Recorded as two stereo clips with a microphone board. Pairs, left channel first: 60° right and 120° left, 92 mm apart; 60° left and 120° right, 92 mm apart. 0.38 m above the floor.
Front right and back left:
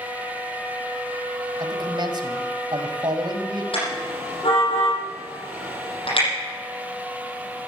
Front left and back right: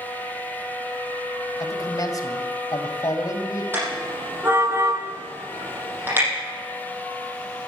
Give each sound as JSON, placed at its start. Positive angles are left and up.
{"t": 1.6, "sound": "a man speaking", "azimuth_deg": 100, "distance_m": 2.0}
{"t": 3.7, "sound": "a car horn", "azimuth_deg": -55, "distance_m": 8.0}